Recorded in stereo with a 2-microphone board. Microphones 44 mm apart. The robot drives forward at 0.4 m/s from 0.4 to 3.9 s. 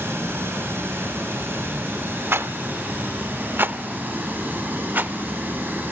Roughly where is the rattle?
Right.